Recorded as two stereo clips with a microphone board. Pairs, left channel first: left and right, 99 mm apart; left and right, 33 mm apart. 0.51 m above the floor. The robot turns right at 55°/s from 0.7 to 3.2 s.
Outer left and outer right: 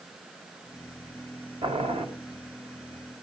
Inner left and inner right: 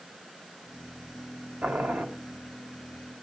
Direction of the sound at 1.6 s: 65° right (ahead or behind).